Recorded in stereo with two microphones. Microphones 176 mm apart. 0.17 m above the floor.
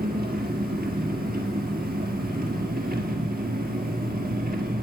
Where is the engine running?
60° right (ahead or behind), 1.6 m.